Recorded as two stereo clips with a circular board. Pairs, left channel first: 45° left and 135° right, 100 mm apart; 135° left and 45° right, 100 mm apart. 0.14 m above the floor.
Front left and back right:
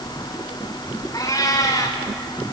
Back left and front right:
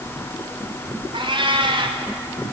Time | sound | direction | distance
1.1 | a cat meowing | 10° right | 4 m